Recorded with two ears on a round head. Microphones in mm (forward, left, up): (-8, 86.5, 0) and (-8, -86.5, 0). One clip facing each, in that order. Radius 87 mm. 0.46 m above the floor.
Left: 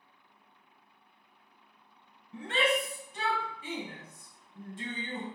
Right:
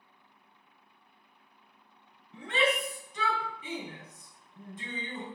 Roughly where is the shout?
Left.